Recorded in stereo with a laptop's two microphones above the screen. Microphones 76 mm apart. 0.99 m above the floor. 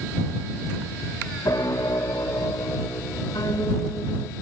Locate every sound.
1.4 s a piano: 55° left (ahead or behind)